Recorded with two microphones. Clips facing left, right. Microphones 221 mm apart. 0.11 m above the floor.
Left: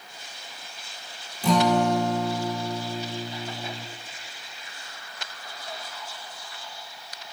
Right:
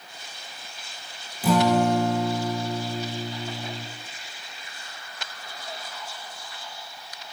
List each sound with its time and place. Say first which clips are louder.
1.4 s a guitar: right 1 dB; 5° right (ahead or behind), 3 m